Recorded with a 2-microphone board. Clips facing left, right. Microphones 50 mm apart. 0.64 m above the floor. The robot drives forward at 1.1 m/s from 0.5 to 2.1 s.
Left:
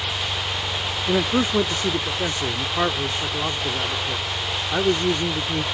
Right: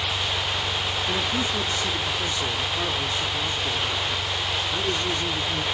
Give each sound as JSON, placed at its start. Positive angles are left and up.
{"t": 0.0, "sound": "an engine running", "side_deg": 30}
{"t": 1.1, "sound": "a man speaking", "side_deg": 50}